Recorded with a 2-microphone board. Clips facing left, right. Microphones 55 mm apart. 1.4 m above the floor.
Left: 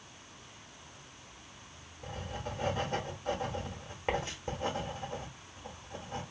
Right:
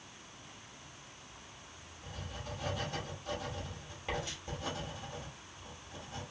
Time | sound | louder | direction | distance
2.0 | writing | left 5 dB | 35° left (ahead or behind) | 1.1 m